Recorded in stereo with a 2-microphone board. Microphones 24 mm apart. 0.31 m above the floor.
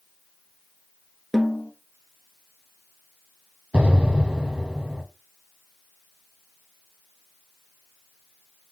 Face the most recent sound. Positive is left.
turn(degrees=-60)  # may be behind; listen again after turning